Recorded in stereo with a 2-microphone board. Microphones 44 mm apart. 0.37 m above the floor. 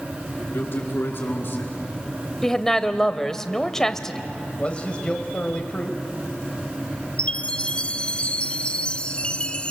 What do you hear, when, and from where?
0.4 s a man speaking: 60° left (ahead or behind), 5.5 m
2.4 s a woman speaking: 10° left (ahead or behind), 1.2 m
4.6 s a man speaking: 25° left (ahead or behind), 1.7 m
7.2 s a chime: 25° left (ahead or behind), 0.7 m